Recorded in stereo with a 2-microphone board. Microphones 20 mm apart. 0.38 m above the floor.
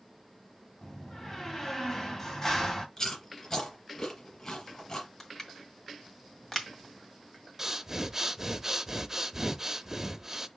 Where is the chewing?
25° left (ahead or behind), 3.5 m.